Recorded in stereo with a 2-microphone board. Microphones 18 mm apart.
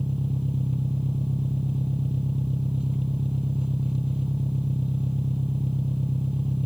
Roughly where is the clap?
No clap in this recording.